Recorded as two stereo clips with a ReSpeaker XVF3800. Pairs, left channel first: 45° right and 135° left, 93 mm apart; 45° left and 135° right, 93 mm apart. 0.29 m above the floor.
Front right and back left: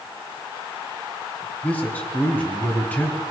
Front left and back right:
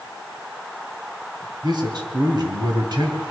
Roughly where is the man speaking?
Behind right.